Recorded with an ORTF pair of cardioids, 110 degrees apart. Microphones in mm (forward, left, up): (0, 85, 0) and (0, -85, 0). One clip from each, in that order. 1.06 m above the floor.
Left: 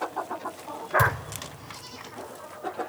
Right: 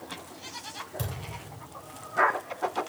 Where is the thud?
40° left, 2.5 m.